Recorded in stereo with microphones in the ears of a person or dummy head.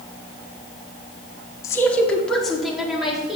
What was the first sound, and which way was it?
A woman speaking, 5° left (ahead or behind).